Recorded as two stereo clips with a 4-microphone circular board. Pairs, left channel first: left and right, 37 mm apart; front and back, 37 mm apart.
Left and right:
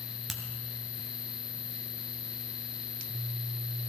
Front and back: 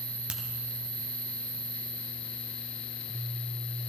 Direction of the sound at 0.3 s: Straight behind.